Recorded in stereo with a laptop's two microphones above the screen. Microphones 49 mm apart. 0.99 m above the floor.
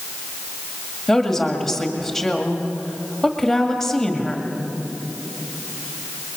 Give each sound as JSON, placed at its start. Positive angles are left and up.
{"t": 1.1, "sound": "a woman speaking", "side_deg": 5, "distance_m": 1.8}